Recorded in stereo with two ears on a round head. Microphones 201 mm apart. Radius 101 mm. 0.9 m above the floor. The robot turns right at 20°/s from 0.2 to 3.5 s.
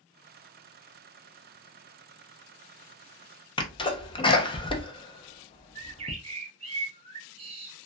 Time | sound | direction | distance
3.6 | a sneeze | 20° left (ahead or behind) | 0.5 m
5.8 | a bird | 25° right (ahead or behind) | 0.8 m